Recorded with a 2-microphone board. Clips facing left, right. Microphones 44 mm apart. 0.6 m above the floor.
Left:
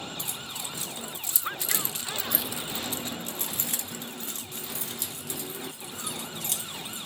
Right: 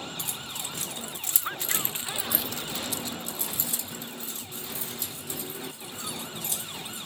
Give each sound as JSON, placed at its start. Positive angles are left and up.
{"t": 0.2, "sound": "keys jangling", "side_deg": -70, "distance_m": 1.3}